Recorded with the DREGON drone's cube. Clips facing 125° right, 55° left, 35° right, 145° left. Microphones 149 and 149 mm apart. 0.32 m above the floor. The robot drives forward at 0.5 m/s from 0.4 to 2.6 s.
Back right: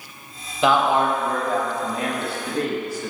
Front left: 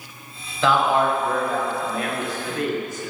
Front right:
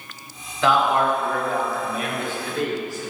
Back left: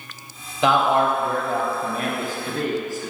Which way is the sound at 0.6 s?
170° right.